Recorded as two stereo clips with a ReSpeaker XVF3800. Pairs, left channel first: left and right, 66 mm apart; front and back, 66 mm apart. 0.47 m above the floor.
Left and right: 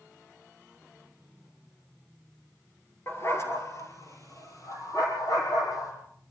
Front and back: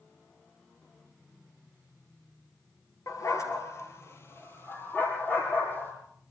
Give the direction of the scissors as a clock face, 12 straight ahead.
No scissors in this recording.